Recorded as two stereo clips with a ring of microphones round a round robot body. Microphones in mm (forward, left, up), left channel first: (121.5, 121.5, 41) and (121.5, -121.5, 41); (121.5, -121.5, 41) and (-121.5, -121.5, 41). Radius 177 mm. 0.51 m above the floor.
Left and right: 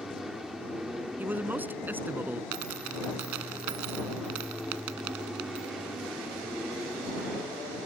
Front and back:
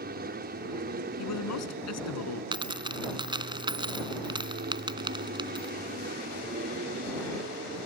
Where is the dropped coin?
110° right.